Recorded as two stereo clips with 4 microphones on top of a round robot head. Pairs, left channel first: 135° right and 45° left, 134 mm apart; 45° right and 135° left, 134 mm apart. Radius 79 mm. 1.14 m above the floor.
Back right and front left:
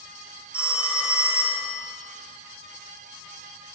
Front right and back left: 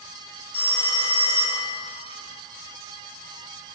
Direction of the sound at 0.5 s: 35° right.